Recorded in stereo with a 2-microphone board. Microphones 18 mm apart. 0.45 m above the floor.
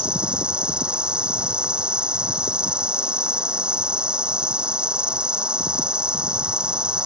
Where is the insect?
70° right (ahead or behind).